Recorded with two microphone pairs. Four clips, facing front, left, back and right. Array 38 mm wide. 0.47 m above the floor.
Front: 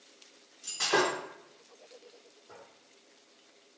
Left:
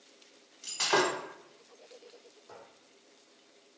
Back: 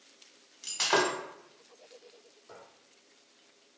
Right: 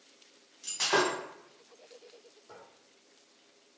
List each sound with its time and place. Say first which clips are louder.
0.6 s breaking glass: even, even; 165° left, 1.2 m
2.5 s a squeak: left 1 dB, back 1 dB; 150° left, 1.6 m